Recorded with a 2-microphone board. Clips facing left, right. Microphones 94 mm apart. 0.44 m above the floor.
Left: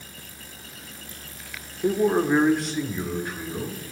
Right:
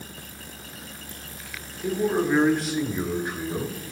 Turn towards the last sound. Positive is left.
turn(degrees=-30)  # may be behind; listen again after turning